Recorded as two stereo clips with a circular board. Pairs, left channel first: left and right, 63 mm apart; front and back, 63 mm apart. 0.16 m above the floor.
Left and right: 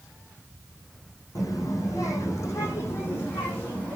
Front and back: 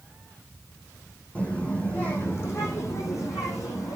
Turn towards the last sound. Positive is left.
turn(degrees=25)